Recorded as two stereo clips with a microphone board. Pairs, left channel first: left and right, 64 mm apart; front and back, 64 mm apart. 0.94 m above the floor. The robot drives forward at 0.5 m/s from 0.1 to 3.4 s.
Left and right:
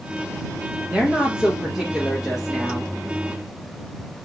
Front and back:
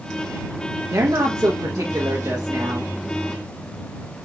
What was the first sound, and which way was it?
A woman speaking, 160° right.